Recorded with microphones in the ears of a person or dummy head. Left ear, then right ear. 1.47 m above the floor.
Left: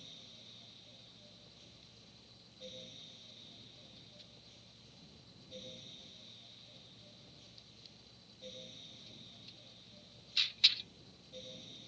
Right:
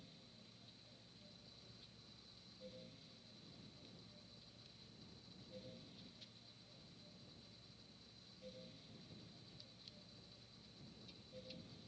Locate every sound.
0.0 s a fan: 45° left (ahead or behind)